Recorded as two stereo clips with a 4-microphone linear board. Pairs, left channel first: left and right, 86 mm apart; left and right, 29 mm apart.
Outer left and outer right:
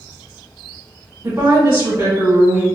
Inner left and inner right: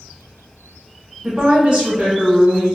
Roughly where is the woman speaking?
Right.